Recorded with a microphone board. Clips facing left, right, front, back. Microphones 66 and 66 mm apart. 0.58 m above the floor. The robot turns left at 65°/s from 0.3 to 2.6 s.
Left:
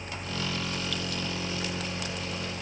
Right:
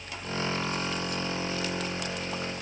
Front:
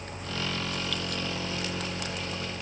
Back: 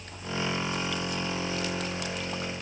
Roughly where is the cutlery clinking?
No cutlery clinking in this recording.